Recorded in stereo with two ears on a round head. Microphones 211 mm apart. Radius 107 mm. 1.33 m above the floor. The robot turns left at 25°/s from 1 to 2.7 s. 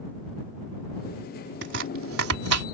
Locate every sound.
1.6 s chopping: 50° right (ahead or behind); by 2.7 s 75° right (ahead or behind)